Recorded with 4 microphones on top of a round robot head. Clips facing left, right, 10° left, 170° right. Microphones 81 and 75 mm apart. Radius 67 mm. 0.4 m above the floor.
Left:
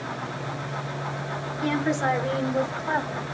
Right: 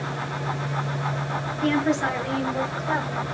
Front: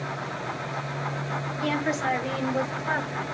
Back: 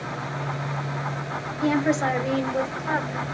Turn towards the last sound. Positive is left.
turn(degrees=120)